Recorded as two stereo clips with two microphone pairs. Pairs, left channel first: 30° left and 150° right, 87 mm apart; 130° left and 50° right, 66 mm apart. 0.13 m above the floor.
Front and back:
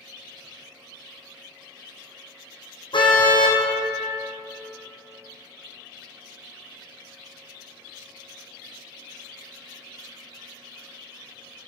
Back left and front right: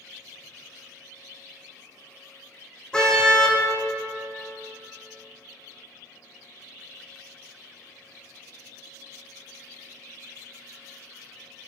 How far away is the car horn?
About 2.5 m.